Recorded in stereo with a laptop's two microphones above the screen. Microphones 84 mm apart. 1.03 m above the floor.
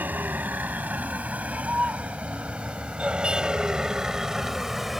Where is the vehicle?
20° right (ahead or behind); by 5.0 s 5° right (ahead or behind).